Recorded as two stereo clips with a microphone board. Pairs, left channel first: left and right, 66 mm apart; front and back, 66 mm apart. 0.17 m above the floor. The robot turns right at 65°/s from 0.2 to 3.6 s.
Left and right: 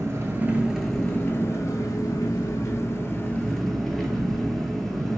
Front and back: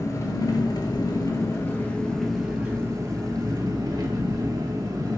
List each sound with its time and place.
0.0 s an engine running: 40° right, 0.7 m; by 5.2 s straight behind, 0.7 m